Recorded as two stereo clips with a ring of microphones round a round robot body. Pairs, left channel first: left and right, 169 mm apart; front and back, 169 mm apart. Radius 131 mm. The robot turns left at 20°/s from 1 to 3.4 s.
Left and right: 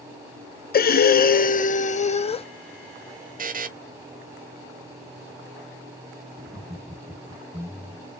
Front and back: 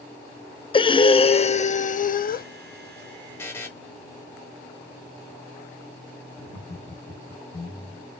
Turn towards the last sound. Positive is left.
turn(degrees=-15)